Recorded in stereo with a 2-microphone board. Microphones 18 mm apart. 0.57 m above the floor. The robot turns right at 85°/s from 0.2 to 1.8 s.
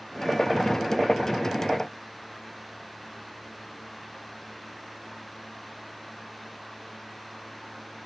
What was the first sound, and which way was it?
Only background noise.